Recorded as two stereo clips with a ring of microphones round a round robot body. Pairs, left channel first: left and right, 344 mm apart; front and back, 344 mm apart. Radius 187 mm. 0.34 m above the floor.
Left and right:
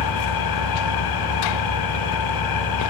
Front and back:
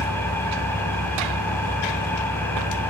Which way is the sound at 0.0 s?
85° left.